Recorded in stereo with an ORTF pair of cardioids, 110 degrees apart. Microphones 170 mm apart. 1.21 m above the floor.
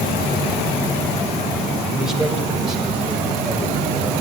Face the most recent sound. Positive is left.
turn(degrees=-5)